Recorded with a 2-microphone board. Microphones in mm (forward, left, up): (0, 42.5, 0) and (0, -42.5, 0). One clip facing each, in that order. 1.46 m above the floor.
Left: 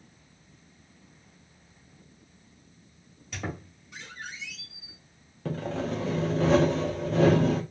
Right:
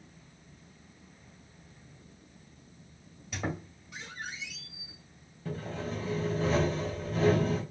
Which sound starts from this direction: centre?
A squeak, at 3.3 s.